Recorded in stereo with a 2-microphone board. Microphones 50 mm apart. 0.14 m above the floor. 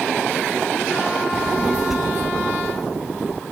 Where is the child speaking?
5° left (ahead or behind); by 3.4 s 15° right (ahead or behind).